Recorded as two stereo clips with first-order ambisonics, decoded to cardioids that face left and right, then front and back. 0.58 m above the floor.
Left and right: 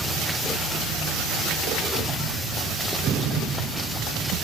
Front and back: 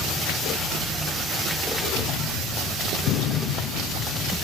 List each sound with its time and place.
1.9 s a gunshot: 25° right, 2.5 m